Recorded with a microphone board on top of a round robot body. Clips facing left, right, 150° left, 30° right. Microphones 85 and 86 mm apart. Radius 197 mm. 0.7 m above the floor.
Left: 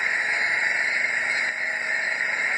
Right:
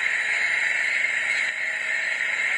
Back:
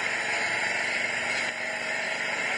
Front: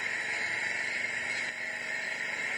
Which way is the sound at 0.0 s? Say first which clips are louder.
Left 1 dB, back 6 dB; 165° left.